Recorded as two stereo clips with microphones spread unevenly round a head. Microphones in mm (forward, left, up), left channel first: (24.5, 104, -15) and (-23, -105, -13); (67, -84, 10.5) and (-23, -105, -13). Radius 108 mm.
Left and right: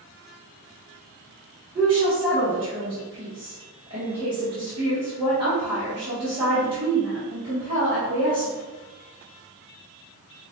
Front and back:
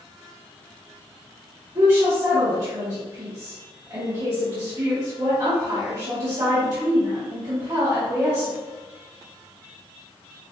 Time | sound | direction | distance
1.8 | a woman speaking | 170° right | 1.3 m